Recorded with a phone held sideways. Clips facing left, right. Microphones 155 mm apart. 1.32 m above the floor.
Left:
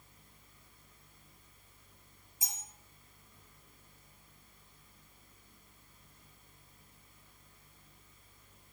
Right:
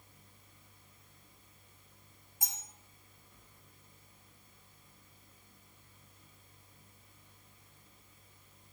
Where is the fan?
25° right (ahead or behind), 2.5 m.